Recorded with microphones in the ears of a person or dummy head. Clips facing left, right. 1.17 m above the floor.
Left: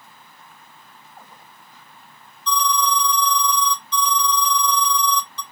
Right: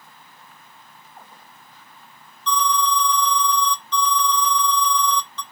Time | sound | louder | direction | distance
2.5 | an alarm | even | 20° left (ahead or behind) | 2.5 m